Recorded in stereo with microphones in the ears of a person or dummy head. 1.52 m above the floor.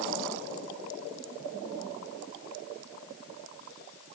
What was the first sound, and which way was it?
Only background noise.